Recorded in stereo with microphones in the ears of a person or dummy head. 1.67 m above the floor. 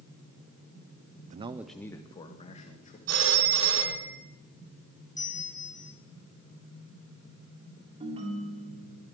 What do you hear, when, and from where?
1.3 s a man speaking: 50° right (ahead or behind), 0.6 m; by 3.0 s 35° left (ahead or behind), 2.0 m
3.1 s a phone ringing: 70° right (ahead or behind), 3 m
5.2 s a bell: 10° left (ahead or behind), 1.0 m
8.0 s a ringtone: 40° right (ahead or behind), 2.5 m